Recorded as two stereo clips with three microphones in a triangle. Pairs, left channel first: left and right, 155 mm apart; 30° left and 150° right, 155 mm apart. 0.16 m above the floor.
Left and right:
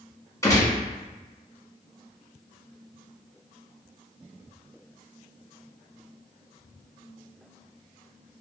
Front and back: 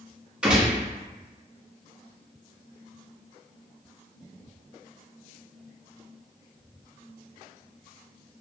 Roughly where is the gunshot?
Behind left.